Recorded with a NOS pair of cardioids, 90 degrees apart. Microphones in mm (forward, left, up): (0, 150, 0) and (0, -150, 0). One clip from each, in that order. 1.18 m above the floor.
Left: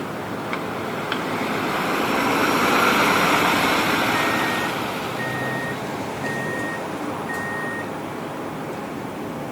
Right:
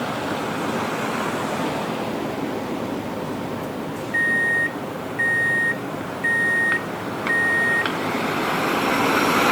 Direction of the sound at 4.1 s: 30° right.